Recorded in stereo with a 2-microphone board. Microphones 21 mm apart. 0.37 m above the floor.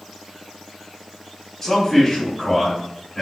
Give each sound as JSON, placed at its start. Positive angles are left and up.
{"t": 1.6, "sound": "a man speaking", "side_deg": 0, "distance_m": 1.8}